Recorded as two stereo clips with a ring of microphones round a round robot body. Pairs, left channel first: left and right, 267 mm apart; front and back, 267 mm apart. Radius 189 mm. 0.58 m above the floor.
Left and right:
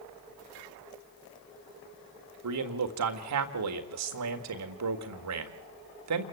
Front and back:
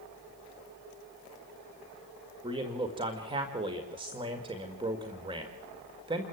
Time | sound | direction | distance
2.4 | a man speaking | 105° right | 1.7 m